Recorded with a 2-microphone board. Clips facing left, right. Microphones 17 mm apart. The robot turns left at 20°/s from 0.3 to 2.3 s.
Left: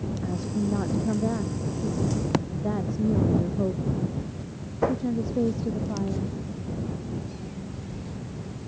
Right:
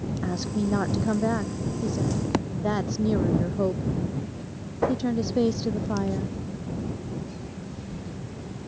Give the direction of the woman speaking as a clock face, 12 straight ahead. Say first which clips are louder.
Right 1 dB; 2 o'clock.